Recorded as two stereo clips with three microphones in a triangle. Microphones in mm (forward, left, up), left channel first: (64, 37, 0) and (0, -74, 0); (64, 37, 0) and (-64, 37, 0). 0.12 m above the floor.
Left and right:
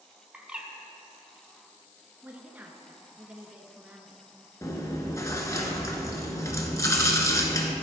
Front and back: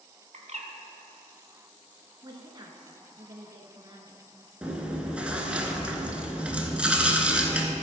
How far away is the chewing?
About 1.0 m.